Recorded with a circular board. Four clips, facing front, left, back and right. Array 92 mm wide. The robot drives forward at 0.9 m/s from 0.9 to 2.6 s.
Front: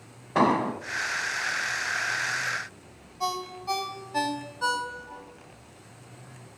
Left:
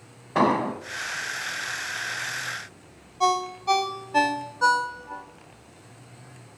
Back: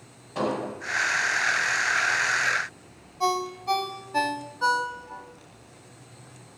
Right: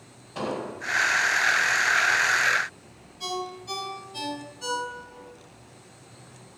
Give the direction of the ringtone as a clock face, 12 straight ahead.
9 o'clock.